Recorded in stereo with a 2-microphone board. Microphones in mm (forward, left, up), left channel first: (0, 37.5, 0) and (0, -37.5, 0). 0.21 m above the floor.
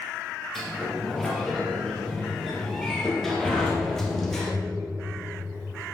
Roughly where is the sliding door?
Centre.